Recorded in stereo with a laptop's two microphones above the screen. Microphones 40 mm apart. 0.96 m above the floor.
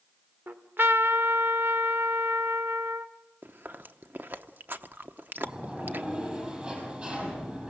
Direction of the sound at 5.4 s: 25° right (ahead or behind).